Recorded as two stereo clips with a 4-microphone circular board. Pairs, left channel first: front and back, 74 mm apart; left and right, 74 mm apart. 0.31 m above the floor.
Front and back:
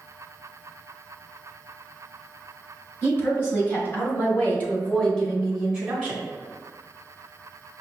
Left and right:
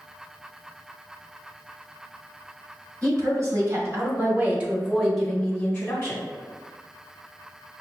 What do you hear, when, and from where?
3.0 s a woman speaking: 50° right, 1.8 m; by 6.2 s 110° left, 1.2 m